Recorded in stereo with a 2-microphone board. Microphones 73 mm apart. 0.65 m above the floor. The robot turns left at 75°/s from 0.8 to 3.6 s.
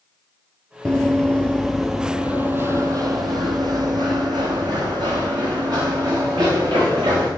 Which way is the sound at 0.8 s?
15° left (ahead or behind).